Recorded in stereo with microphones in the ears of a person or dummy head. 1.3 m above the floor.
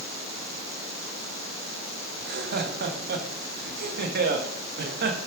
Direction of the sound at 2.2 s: 55° right (ahead or behind).